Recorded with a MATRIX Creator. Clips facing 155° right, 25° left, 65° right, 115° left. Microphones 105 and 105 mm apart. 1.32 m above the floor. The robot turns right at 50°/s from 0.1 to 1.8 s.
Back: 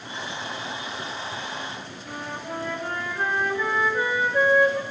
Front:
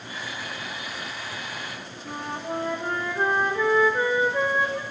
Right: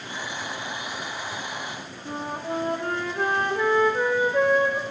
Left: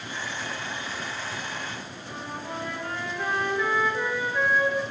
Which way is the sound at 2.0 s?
30° right.